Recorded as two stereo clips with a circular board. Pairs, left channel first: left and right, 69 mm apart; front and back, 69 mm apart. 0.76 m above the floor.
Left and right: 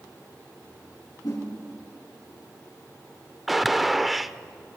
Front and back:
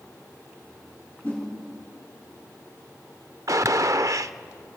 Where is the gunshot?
Straight behind, 0.5 m.